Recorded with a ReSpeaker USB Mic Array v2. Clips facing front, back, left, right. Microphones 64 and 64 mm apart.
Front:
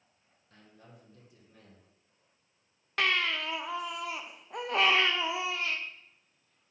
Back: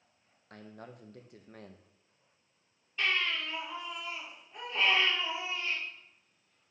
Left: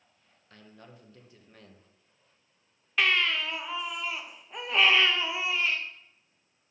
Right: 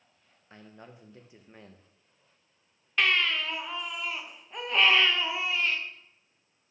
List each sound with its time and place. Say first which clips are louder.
0.5 s a man speaking: back 8 dB, right 2 dB; 155° right, 0.8 m
3.0 s a baby crying: front 2 dB, even; 5° left, 0.7 m